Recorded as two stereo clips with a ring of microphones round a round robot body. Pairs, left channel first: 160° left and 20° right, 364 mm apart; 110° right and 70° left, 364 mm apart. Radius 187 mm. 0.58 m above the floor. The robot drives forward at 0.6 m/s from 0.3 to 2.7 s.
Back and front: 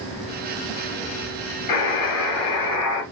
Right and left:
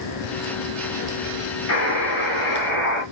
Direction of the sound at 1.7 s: 170° right.